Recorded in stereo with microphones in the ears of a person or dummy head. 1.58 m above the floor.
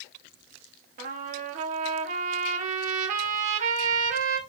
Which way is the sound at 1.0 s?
45° right (ahead or behind).